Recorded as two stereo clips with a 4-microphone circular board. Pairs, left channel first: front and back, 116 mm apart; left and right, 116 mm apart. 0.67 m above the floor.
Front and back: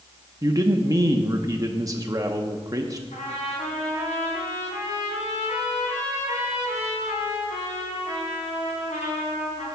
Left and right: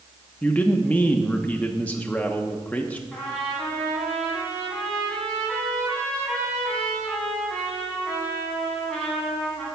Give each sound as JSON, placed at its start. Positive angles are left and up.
{"t": 0.4, "sound": "a man speaking", "azimuth_deg": 155, "distance_m": 0.7}
{"t": 3.1, "sound": "a trumpet", "azimuth_deg": 10, "distance_m": 4.0}